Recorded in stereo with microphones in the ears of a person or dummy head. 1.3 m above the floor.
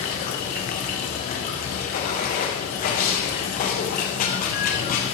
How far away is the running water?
About 1.4 m.